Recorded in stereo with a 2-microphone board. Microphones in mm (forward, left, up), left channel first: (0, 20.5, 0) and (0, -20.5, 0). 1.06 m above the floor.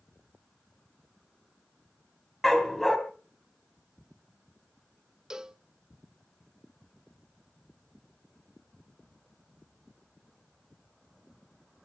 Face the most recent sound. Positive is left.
turn(degrees=-20)  # may be behind; listen again after turning